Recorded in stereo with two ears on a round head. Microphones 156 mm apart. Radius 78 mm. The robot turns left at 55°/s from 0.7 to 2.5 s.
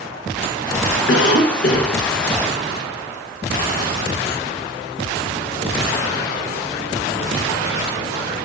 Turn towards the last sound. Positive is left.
turn(degrees=0)